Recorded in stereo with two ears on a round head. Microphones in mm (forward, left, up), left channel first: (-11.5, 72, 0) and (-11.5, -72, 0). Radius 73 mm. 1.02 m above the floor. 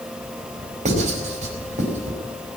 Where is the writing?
45° right (ahead or behind), 4.5 m.